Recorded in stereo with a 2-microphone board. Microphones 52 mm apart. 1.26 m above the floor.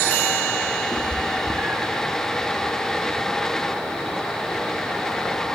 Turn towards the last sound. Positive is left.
turn(degrees=-40)  # may be behind; listen again after turning